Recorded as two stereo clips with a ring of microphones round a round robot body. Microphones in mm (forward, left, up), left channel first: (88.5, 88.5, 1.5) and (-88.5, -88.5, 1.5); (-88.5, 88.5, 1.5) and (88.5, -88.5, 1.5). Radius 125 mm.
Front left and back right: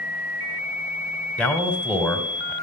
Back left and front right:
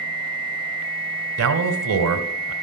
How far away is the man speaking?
About 1.6 m.